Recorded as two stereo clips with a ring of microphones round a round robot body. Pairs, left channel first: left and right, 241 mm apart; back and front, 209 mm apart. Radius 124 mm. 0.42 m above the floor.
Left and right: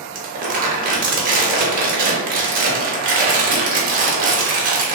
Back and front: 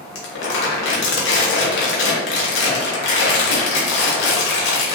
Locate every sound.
0.1 s crumpling: 145° right, 0.7 m